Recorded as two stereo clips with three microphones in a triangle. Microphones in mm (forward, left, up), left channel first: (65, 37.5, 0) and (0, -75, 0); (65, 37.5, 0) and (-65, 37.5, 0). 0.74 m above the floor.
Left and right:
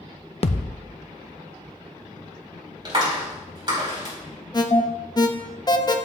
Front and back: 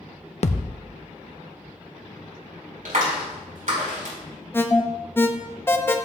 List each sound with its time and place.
0.4 s a thud: 25° left, 0.5 m
2.9 s a clap: 175° right, 4.5 m
4.5 s an alarm: 55° left, 0.7 m